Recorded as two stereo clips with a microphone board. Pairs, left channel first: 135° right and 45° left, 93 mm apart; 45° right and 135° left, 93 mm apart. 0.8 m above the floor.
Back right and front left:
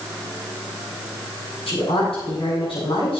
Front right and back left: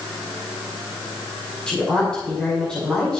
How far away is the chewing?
I don't hear chewing.